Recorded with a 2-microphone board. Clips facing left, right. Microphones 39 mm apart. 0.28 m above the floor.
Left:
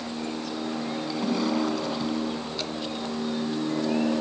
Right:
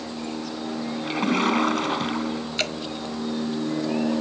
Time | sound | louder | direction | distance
1.0 | a splash | right 5 dB | 60° right (ahead or behind) | ?
2.6 | dripping | right 5 dB | 70° right (ahead or behind) | ?